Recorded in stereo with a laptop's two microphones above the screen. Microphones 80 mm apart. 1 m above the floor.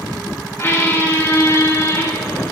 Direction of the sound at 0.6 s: 30° left (ahead or behind).